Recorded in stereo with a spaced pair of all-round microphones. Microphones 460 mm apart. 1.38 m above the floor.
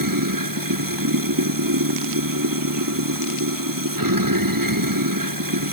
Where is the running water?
45° right (ahead or behind).